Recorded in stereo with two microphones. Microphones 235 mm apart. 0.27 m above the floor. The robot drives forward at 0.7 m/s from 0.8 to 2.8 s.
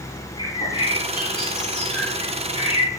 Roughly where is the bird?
Left.